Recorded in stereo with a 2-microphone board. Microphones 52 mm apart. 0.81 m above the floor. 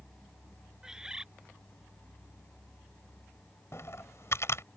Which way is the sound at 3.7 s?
60° left (ahead or behind).